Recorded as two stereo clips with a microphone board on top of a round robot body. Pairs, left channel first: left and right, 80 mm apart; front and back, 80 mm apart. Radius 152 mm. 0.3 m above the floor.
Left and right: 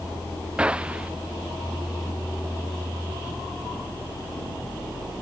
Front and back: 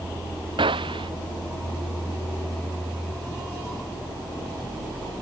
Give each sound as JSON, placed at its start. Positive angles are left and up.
{"t": 0.6, "sound": "a gunshot", "azimuth_deg": -165}